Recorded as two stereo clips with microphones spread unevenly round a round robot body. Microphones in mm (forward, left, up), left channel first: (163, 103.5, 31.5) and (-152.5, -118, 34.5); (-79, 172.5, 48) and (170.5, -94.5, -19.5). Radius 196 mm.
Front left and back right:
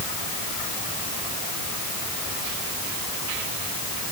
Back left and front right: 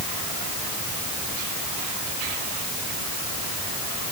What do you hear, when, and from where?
Only background noise.